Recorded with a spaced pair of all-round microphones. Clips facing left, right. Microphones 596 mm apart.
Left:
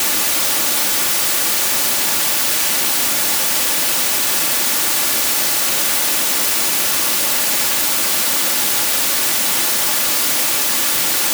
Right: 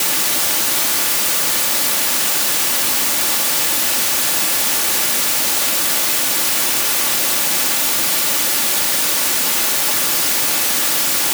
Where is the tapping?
I don't hear tapping.